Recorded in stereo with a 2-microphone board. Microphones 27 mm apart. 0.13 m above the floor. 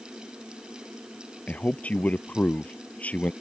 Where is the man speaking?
55° left (ahead or behind).